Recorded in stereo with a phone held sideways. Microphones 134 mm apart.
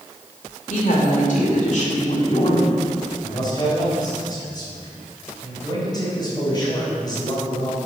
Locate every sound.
0.7 s a woman speaking: 70° left (ahead or behind), 2.5 m; by 2.7 s 40° left (ahead or behind), 1.8 m
3.2 s a man speaking: 30° left (ahead or behind), 4 m